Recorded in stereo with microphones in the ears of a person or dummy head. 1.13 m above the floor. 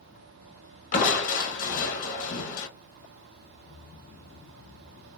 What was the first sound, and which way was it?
Crushing, 45° left (ahead or behind).